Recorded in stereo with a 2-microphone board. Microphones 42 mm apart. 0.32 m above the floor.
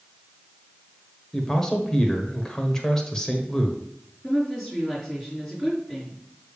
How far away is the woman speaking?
About 4.5 m.